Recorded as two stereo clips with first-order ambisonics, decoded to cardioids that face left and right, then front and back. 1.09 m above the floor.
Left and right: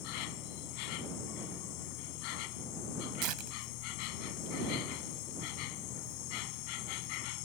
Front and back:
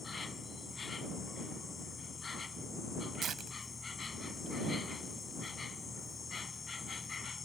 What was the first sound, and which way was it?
An insect, 75° left.